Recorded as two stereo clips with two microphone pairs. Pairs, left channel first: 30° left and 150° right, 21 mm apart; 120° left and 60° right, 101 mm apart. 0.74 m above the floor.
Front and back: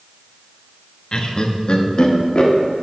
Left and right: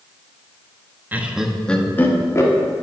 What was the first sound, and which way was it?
Laughter, 10° left.